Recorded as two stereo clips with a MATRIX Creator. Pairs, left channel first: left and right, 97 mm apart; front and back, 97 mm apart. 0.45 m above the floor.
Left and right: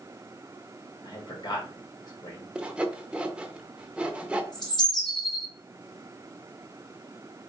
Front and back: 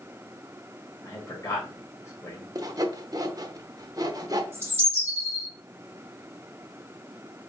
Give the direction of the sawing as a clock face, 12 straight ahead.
5 o'clock.